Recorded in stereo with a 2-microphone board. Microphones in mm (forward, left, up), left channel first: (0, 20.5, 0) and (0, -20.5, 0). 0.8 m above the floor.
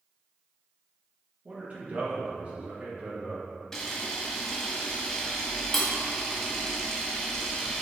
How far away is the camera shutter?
About 1.0 m.